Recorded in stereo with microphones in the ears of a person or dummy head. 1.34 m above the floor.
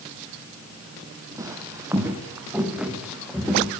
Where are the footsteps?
15° right (ahead or behind), 2.5 m; by 3.7 s centre (ahead or behind), 3.5 m.